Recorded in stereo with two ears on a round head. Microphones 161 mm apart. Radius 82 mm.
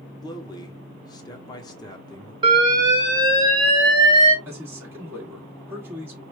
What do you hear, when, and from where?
0.2 s a man speaking: 20° left (ahead or behind), 0.8 m
2.4 s an alarm: 25° right (ahead or behind), 1.4 m
4.5 s a man speaking: 15° right (ahead or behind), 1.5 m